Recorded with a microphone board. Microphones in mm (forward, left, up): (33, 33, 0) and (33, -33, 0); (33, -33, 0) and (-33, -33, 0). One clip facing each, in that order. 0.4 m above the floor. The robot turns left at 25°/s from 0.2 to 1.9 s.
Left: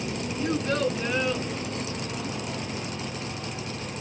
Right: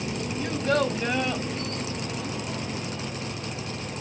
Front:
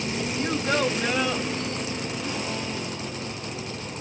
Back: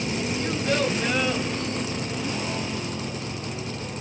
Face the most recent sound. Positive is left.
turn(degrees=-100)